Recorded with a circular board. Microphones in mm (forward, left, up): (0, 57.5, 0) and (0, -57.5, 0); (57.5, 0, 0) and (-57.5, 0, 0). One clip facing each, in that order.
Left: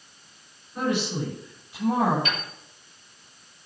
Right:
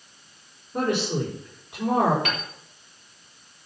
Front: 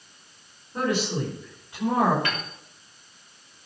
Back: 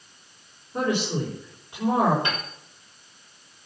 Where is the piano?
110° right, 3.5 m.